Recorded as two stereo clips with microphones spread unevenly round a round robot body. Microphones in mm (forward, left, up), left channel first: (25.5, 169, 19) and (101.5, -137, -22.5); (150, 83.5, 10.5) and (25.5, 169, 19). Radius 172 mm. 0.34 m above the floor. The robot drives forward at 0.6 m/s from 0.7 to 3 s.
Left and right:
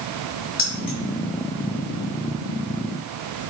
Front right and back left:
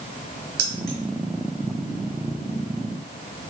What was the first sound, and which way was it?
Keys jangling, 165° left.